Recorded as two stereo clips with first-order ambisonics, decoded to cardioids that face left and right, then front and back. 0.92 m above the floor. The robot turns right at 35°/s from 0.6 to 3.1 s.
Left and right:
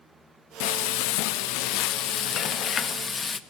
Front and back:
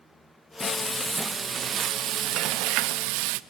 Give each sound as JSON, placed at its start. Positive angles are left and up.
{"t": 0.6, "sound": "frying", "azimuth_deg": 75, "distance_m": 0.6}